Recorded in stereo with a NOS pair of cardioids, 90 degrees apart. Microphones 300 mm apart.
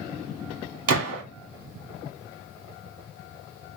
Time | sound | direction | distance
0.9 | a gunshot | 55° right | 2 m